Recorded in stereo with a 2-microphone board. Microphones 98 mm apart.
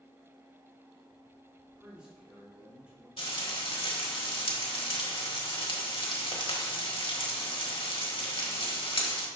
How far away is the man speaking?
About 3 m.